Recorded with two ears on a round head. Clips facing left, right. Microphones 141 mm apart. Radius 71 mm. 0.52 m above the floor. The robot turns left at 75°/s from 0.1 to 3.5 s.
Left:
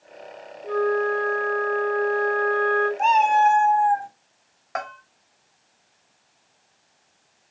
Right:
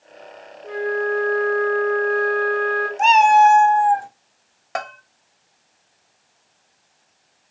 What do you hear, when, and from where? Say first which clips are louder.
0.6 s a flute: left 1 dB; 20° left, 2.5 m; by 2.9 s 150° right, 2.5 m
3.0 s a cat meowing: right 6 dB; 70° right, 0.5 m; by 4.1 s 105° right, 0.5 m
4.8 s a bell: right 3 dB; 40° right (ahead or behind), 0.7 m